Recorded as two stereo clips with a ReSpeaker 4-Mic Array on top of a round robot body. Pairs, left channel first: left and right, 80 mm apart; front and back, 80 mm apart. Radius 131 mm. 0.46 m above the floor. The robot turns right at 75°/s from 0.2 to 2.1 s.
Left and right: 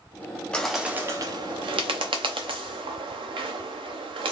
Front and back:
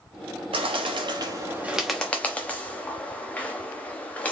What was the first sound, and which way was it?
A bird, 170° left.